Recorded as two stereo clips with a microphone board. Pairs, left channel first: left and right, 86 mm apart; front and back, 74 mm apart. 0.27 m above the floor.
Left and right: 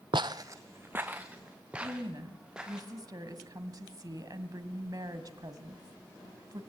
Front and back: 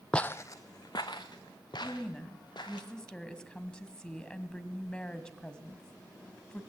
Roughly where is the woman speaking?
Right.